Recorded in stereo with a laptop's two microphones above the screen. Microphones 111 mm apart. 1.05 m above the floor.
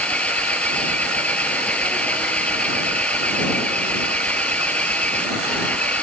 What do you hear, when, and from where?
0.0 s an engine running: 10° left (ahead or behind)